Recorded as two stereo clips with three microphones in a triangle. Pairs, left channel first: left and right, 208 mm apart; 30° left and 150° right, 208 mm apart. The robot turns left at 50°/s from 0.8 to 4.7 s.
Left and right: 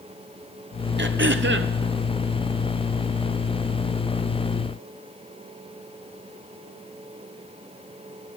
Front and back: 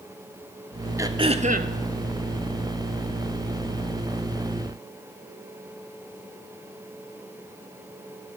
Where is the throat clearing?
75° right, 0.6 m; by 1.7 s 110° right, 0.6 m.